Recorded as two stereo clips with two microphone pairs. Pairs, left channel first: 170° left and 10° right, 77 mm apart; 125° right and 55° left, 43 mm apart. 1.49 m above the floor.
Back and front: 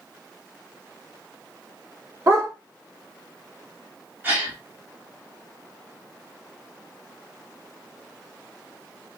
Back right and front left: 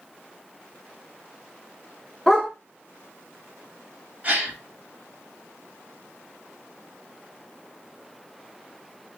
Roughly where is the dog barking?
Ahead right.